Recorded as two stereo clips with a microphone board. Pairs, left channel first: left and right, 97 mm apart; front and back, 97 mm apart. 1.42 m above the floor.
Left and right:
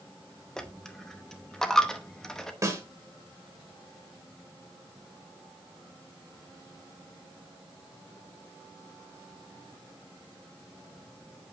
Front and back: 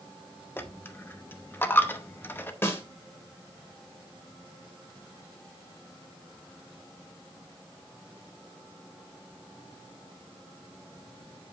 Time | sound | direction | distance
0.6 | a dropped coin | 15° left | 0.8 m
2.6 | a snare drum | 50° right | 1.4 m